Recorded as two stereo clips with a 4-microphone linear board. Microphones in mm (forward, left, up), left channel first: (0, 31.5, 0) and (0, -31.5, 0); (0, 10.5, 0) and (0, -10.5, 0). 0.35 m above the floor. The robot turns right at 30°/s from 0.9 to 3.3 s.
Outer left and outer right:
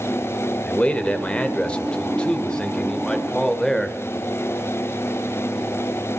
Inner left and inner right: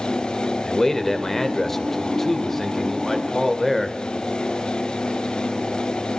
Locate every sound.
0.7 s a man speaking: 20° left (ahead or behind), 1.5 m; by 4.0 s 5° left (ahead or behind), 1.5 m